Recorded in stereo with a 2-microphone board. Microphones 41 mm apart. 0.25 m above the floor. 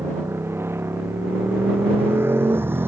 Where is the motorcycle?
80° right; by 2.9 s 65° right (ahead or behind).